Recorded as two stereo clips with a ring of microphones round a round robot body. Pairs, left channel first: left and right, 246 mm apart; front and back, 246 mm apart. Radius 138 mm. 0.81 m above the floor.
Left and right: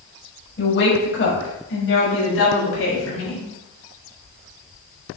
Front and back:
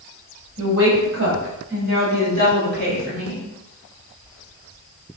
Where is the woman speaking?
135° left, 5 m; by 3.5 s 120° left, 6 m.